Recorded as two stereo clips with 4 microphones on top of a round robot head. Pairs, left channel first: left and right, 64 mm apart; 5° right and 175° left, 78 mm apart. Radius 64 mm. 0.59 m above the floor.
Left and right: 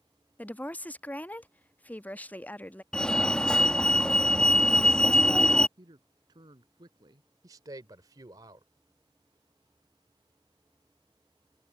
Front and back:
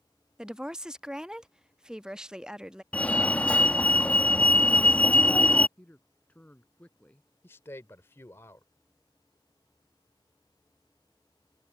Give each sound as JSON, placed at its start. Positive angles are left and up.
{"t": 0.4, "sound": "a woman speaking", "azimuth_deg": 110}
{"t": 2.9, "sound": "a fire alarm", "azimuth_deg": 35}
{"t": 5.8, "sound": "a man speaking", "azimuth_deg": -80}
{"t": 7.4, "sound": "a man speaking", "azimuth_deg": -65}